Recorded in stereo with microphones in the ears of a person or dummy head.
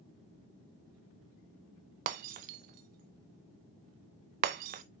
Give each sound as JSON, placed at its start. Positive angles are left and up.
{"t": 2.1, "sound": "breaking glass", "side_deg": -45, "distance_m": 0.7}